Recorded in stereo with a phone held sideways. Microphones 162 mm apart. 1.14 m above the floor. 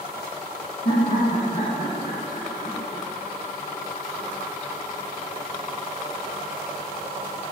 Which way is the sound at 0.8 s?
60° left (ahead or behind).